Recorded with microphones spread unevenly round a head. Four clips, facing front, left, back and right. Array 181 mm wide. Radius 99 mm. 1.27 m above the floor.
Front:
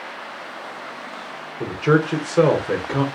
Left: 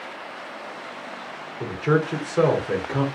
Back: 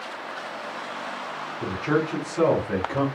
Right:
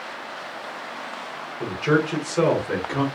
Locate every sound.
1.6 s a man speaking: 5° left, 1.1 m